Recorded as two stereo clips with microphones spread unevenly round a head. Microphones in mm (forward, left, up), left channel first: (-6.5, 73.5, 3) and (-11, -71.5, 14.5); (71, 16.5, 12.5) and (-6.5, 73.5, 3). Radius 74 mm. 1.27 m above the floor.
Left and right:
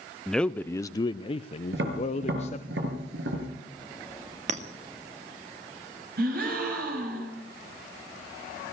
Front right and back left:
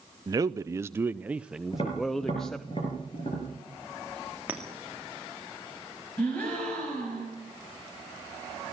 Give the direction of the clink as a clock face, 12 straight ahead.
5 o'clock.